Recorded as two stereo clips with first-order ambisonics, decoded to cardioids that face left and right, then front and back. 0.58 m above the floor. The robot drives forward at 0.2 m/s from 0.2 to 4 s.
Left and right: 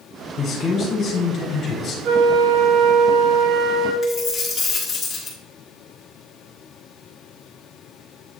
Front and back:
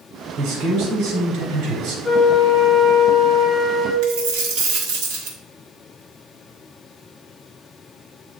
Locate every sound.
0.4 s a man speaking: 150° left, 2.5 m; by 1.9 s 155° left, 2.5 m
2.0 s a flute: 75° right, 1.1 m; by 3.9 s 95° right, 1.1 m
4.0 s a dropped coin: 165° left, 2.5 m